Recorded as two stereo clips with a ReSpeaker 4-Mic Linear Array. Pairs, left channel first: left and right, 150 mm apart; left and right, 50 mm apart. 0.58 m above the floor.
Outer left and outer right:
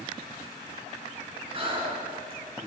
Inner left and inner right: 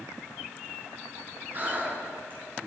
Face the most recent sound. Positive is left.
turn(degrees=-40)  # may be behind; listen again after turning